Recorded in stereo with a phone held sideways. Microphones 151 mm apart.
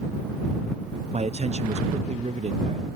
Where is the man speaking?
50° right (ahead or behind).